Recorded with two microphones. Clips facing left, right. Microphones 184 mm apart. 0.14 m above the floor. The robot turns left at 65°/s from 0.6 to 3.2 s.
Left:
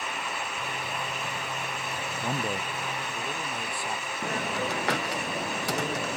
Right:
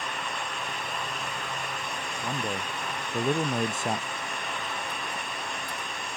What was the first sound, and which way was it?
A man speaking, 20° left.